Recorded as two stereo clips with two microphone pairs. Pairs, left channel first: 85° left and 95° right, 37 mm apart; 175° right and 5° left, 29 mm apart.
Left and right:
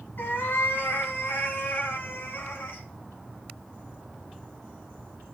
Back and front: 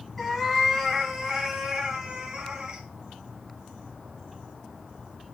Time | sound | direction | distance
0.2 | a cat meowing | 105° left | 1.8 m